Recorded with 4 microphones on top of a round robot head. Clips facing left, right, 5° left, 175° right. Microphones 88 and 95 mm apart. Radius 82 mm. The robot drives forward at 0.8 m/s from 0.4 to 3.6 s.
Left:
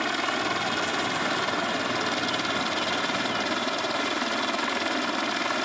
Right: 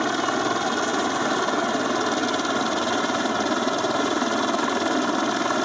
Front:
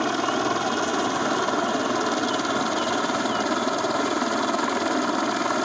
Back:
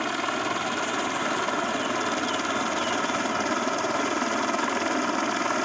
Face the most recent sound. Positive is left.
turn(degrees=-65)